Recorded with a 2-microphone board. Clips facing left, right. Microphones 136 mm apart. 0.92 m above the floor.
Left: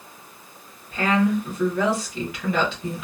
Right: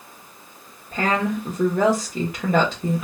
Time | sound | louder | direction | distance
0.9 | a woman speaking | left 2 dB | 45° right (ahead or behind) | 1.2 m